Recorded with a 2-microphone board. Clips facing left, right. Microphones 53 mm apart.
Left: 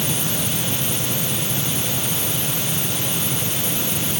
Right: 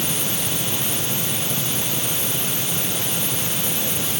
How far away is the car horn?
No car horn in this recording.